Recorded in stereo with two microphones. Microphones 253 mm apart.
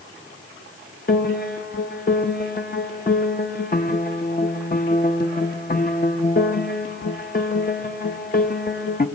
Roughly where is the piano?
Left.